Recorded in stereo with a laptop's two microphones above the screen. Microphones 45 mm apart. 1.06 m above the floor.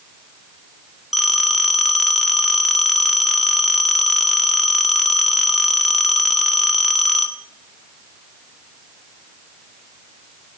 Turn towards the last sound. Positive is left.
turn(degrees=0)  # may be behind; listen again after turning